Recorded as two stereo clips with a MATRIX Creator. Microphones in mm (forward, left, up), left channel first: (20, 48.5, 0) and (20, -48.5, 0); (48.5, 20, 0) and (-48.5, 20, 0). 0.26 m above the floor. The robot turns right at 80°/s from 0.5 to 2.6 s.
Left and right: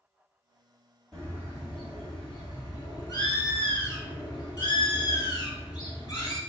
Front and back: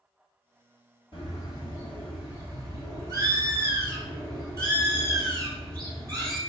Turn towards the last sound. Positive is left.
turn(degrees=130)